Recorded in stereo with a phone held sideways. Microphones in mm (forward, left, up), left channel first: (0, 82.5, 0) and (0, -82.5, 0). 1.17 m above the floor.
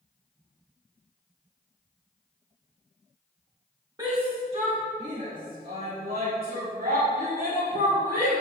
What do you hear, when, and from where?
4.0 s a shout: 25° right (ahead or behind), 1.3 m; by 8.3 s 75° right (ahead or behind), 5 m